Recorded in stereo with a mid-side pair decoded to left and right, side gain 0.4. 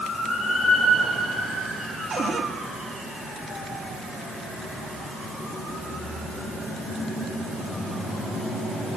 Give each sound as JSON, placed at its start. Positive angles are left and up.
{"t": 2.1, "sound": "a cupboard door", "azimuth_deg": -50, "distance_m": 3.0}